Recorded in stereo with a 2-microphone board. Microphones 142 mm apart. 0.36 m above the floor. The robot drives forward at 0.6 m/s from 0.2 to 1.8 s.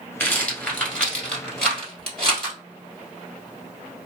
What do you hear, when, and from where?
0.2 s a rattle: 15° left (ahead or behind), 0.9 m; by 2.6 s 5° left (ahead or behind), 1.9 m